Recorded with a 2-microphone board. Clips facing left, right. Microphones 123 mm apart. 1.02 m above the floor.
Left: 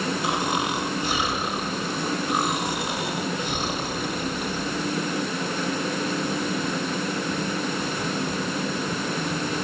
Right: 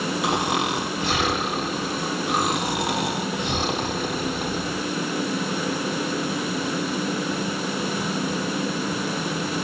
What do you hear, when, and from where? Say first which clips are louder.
0.2 s snoring: right 3 dB; 75° right (ahead or behind), 3.5 m